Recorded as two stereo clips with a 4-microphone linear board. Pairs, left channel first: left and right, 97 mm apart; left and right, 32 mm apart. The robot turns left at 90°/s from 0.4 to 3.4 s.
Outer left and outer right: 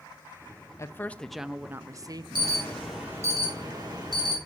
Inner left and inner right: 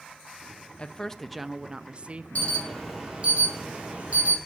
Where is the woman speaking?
50° left, 0.5 m; by 2.6 s 110° right, 0.5 m.